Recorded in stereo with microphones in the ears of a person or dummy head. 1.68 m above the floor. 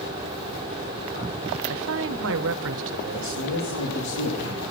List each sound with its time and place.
1.7 s a man speaking: 75° right (ahead or behind), 0.8 m
3.1 s a man speaking: 75° left (ahead or behind), 3.5 m